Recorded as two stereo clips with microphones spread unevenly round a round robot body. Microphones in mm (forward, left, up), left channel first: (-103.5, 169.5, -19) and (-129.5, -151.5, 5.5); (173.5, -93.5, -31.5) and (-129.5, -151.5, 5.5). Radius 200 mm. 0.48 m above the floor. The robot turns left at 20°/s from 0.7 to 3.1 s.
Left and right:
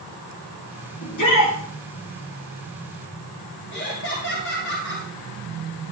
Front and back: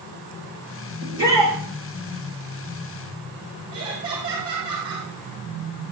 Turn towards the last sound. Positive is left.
turn(degrees=130)